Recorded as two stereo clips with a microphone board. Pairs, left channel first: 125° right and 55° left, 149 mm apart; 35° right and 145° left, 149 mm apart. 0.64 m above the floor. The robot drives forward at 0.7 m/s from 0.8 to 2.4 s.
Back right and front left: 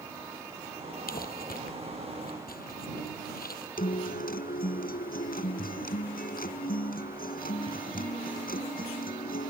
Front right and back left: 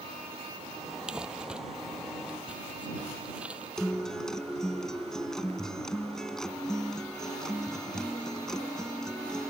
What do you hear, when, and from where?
1.1 s crumpling: 130° right
3.8 s a guitar: 120° right